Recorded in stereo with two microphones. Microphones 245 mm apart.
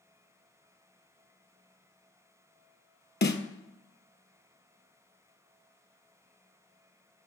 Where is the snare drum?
45° left (ahead or behind), 0.6 m.